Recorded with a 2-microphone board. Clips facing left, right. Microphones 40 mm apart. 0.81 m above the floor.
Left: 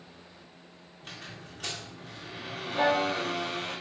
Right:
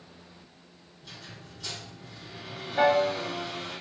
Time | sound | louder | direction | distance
1.0 | a squeak | left 2 dB | 50° left (ahead or behind) | 0.6 m
2.8 | a piano | right 3 dB | 65° right (ahead or behind) | 1.0 m